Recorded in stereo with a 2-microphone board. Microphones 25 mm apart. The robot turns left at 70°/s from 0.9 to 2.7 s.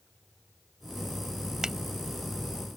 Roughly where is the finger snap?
Right.